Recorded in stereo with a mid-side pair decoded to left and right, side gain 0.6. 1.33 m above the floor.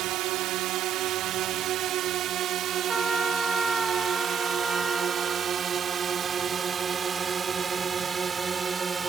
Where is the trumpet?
10° right.